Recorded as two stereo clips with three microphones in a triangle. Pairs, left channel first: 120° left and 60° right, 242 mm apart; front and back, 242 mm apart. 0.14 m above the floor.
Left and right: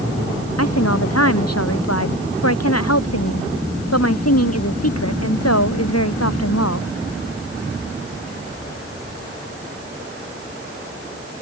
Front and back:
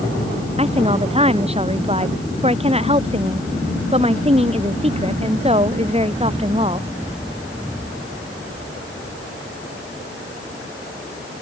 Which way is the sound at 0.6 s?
115° left.